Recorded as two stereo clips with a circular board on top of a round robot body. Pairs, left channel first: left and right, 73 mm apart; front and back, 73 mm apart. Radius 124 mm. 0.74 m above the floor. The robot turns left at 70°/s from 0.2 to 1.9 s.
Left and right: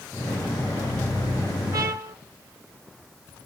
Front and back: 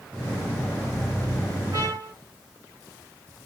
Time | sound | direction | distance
1.7 | a trumpet | 135° right | 1.2 m